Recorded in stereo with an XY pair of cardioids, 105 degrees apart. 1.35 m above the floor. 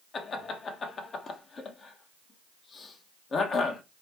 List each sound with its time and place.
0.1 s laughter: 45° left, 1.2 m